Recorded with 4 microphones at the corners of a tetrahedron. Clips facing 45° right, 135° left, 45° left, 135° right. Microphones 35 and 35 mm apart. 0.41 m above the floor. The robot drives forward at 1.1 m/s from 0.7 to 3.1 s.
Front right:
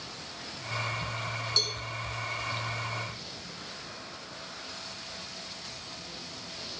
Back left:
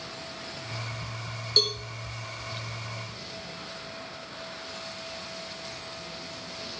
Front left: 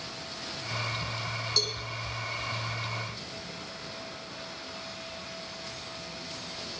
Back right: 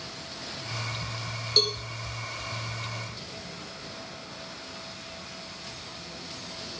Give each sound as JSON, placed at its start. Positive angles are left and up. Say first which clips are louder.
{"t": 1.6, "sound": "a cowbell", "louder": "back left 6 dB, back right 6 dB", "azimuth_deg": 180, "distance_m": 1.8}